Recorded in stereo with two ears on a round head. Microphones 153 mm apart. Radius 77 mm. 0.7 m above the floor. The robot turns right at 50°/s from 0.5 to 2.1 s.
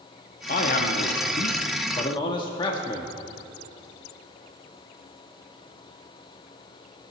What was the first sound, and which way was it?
A man speaking, 70° left.